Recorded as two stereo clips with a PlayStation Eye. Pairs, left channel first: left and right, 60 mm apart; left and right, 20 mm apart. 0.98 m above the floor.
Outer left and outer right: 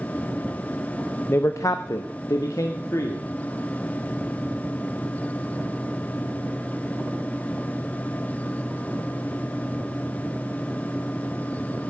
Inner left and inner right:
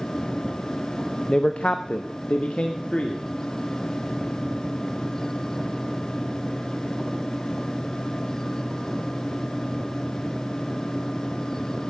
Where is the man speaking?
40° left (ahead or behind), 0.6 m; by 3.2 s 65° left (ahead or behind), 1.5 m.